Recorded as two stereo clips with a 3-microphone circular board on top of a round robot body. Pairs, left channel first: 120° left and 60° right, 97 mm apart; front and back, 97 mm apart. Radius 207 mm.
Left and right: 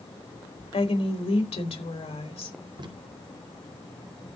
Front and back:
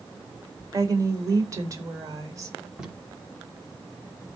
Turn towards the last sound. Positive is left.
turn(degrees=-100)